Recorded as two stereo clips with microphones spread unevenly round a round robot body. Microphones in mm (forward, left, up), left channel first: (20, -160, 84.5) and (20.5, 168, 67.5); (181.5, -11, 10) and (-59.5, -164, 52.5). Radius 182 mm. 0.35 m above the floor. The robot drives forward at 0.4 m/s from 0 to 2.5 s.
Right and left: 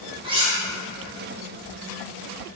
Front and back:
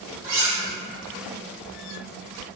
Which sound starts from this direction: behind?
Cutlery clinking, at 0.2 s.